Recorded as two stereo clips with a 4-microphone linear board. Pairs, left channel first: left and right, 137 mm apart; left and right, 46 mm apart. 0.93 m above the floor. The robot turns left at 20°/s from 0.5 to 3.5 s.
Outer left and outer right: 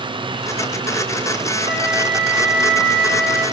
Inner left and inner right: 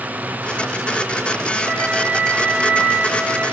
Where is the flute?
135° right, 8 m; by 3.4 s 175° right, 8 m.